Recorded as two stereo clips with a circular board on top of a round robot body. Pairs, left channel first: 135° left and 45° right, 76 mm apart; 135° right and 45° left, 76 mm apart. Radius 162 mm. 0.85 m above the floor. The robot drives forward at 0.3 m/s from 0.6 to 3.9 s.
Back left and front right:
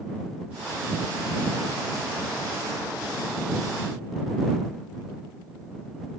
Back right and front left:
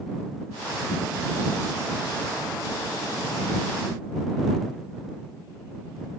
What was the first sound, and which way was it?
Only background noise.